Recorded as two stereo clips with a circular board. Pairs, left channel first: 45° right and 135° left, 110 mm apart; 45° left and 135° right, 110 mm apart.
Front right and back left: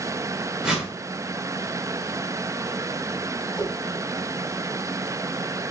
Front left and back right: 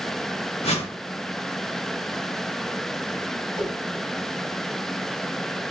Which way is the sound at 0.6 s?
50° left.